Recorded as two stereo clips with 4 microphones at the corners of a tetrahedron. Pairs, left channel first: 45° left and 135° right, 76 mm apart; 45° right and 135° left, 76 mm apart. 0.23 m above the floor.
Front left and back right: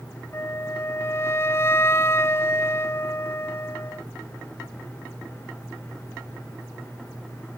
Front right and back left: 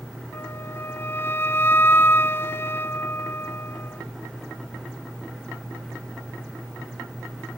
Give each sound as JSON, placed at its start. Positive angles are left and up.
{"t": 0.3, "sound": "a flute", "azimuth_deg": 5}